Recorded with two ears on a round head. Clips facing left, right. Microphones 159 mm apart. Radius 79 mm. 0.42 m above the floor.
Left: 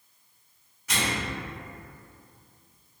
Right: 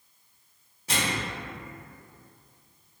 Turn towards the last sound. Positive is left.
turn(degrees=-30)  # may be behind; listen again after turning